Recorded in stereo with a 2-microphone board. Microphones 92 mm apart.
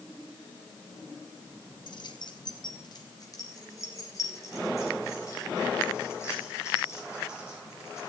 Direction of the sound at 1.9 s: 55° left (ahead or behind).